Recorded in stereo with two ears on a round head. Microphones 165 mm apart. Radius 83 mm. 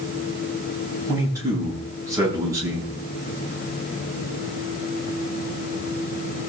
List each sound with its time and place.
1.1 s a man speaking: 15° right (ahead or behind), 6 m